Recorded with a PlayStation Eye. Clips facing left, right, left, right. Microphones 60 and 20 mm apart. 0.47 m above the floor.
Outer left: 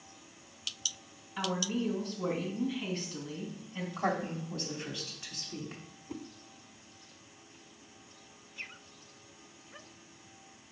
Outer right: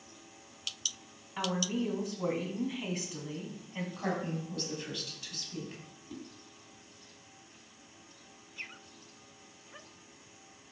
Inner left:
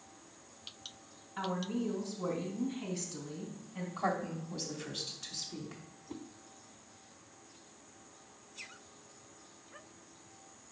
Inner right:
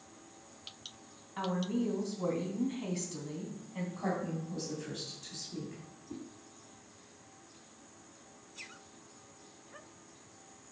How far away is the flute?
No flute in this recording.